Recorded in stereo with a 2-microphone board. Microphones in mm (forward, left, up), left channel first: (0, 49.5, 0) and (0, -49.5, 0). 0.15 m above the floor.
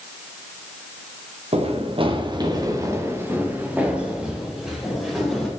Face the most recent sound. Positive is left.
turn(degrees=0)  # may be behind; listen again after turning